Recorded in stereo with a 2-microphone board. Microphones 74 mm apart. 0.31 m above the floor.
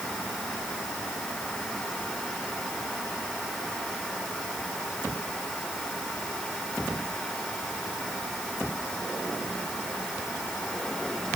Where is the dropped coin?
No dropped coin in this recording.